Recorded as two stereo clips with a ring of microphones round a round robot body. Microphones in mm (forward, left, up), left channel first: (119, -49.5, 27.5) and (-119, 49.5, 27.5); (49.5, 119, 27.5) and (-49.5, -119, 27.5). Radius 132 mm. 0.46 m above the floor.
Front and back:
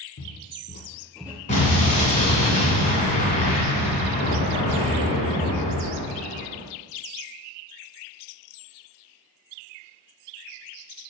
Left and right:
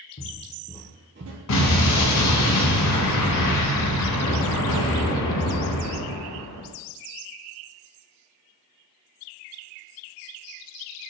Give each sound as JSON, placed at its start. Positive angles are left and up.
{"t": 0.2, "sound": "footsteps", "azimuth_deg": 15, "distance_m": 1.1}
{"t": 1.5, "sound": "an explosion", "azimuth_deg": 40, "distance_m": 1.0}